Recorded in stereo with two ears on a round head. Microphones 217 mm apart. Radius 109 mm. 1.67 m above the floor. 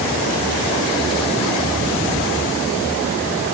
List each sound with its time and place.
Only background noise.